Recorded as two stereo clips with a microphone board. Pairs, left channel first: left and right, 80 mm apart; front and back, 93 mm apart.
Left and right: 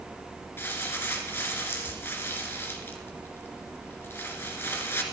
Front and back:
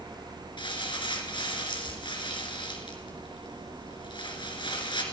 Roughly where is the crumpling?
Ahead left.